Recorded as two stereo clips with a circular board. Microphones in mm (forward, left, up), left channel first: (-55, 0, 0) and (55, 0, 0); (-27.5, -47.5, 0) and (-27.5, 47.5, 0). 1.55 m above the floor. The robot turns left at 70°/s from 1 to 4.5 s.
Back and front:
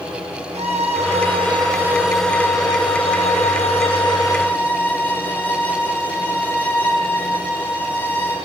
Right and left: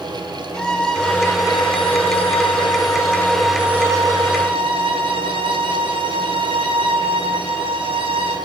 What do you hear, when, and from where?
0.5 s a violin: 10° right, 1.6 m; by 8.4 s 105° left, 1.6 m